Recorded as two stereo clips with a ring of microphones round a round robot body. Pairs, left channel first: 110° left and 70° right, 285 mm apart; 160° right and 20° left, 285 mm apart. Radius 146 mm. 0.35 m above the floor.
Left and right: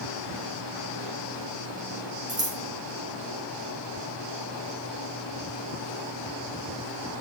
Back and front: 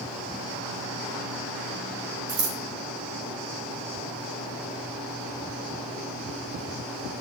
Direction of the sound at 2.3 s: 10° left.